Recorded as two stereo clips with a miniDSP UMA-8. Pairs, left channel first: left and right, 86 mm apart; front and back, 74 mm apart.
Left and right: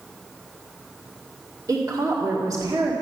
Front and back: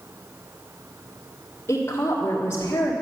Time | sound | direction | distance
1.7 | a woman speaking | 55° right | 2 m